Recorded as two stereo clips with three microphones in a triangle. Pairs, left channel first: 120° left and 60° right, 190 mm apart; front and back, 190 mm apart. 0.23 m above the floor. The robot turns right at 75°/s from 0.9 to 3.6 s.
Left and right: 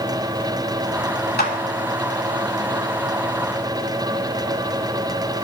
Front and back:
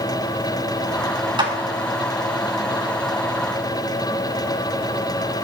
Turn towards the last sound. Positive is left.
turn(degrees=-70)